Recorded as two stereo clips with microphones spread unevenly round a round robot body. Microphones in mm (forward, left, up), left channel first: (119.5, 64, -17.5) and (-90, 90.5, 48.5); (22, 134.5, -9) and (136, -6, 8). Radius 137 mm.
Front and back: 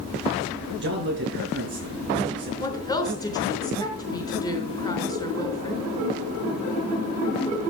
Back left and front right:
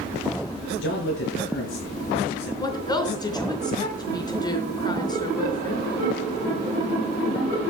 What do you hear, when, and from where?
0.8 s a man speaking: 135° left, 6 m
2.6 s a woman speaking: 60° left, 4 m